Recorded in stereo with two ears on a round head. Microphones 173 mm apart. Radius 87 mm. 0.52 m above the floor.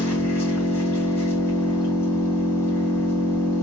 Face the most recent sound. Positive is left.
turn(degrees=15)  # may be behind; listen again after turning